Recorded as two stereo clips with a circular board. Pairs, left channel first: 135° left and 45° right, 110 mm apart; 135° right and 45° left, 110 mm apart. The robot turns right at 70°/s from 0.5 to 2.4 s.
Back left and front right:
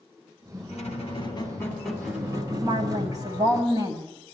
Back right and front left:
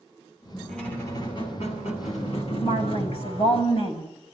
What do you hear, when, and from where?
0.7 s a squeak: 140° left, 7 m; by 3.6 s 100° right, 7 m
2.6 s a woman speaking: 105° right, 9 m